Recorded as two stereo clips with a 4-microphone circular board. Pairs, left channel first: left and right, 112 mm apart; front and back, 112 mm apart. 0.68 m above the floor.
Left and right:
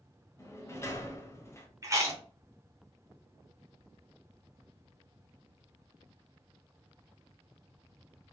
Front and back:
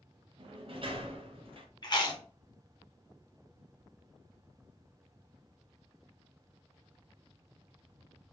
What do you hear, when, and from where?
0.4 s a sliding door: 155° left, 0.7 m
1.8 s chewing: 35° right, 1.0 m